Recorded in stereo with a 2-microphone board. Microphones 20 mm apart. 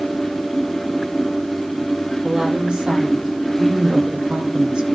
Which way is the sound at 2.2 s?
50° right (ahead or behind).